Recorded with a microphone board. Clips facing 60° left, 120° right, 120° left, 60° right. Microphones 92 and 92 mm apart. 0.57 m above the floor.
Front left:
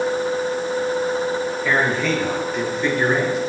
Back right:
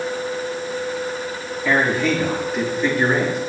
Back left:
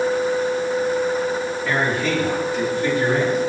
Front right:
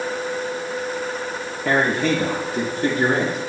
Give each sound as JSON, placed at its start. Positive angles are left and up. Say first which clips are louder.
{"t": 1.6, "sound": "a man speaking", "louder": "back right 3 dB, front right 4 dB", "azimuth_deg": -35, "distance_m": 9.0}